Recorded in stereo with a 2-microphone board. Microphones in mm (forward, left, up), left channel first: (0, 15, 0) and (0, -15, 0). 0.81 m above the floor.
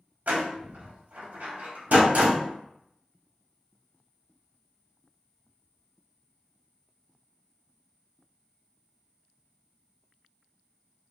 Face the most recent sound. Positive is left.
turn(degrees=-70)  # may be behind; listen again after turning